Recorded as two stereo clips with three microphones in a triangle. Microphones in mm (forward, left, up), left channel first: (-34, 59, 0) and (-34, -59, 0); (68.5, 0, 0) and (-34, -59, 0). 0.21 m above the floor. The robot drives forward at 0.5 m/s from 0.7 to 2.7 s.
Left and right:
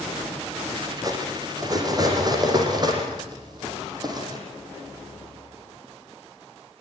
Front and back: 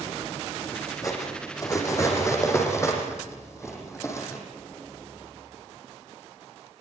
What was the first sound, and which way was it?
Cutlery clinking, 30° right.